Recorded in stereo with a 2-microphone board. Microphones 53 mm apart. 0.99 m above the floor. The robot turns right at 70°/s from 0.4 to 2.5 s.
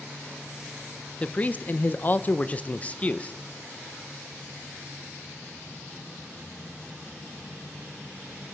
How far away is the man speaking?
About 0.5 m.